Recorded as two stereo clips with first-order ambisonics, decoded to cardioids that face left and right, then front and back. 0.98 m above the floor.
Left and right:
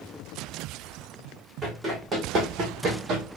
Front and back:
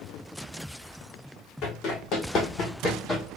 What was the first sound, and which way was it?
Running footsteps, 10° right.